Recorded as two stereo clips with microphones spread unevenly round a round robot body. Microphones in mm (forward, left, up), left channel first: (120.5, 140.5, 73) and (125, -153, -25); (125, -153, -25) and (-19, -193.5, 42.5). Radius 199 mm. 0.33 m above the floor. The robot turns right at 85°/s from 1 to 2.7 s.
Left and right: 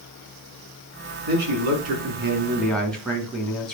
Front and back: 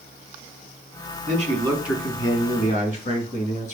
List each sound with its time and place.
1.3 s a man speaking: 125° right, 3 m; by 3.8 s straight ahead, 3 m